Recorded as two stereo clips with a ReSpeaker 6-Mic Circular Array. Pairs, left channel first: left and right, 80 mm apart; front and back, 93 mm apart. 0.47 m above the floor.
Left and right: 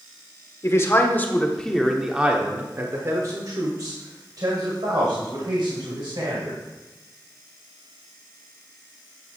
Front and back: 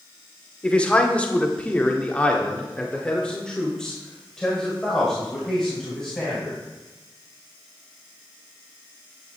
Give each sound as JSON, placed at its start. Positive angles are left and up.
{"t": 0.6, "sound": "a man speaking", "azimuth_deg": 70, "distance_m": 1.4}